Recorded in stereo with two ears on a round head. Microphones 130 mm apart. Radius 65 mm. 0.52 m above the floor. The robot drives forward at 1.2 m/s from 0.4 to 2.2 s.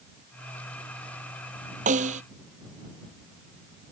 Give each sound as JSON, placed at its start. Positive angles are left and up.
{"t": 1.9, "sound": "a snare drum", "side_deg": -55}